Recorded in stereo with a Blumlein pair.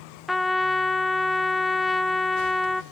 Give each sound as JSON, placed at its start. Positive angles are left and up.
{"t": 0.3, "sound": "a trumpet", "azimuth_deg": 5, "distance_m": 0.7}